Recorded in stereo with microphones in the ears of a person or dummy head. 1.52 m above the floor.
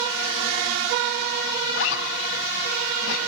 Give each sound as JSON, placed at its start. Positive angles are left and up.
{"t": 1.7, "sound": "a zipper", "side_deg": 70, "distance_m": 4.0}